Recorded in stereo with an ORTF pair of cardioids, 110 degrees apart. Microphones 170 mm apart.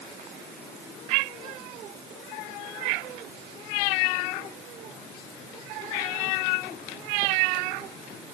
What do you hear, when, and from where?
Only background noise.